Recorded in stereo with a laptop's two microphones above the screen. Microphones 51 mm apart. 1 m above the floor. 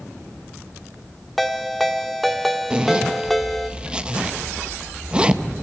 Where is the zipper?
15° right (ahead or behind), 0.5 m.